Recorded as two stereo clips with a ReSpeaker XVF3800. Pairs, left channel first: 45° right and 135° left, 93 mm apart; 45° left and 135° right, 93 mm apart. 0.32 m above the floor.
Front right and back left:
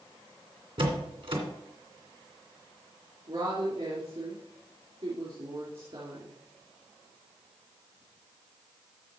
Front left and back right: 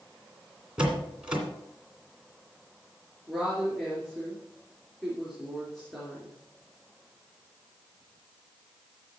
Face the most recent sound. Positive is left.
turn(degrees=130)